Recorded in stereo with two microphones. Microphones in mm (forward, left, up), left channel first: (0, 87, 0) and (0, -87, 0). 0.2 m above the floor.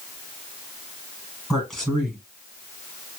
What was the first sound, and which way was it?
A man speaking, 5° left (ahead or behind).